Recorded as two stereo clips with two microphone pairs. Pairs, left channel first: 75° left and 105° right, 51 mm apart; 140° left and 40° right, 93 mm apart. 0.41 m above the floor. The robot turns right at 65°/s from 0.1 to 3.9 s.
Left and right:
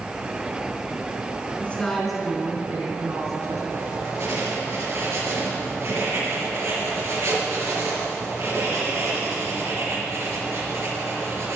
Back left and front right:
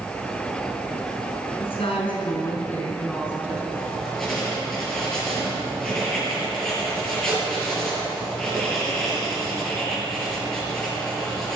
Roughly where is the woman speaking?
Behind left.